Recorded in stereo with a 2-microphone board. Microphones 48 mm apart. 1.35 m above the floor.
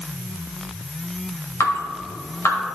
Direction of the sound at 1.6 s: 65° left (ahead or behind).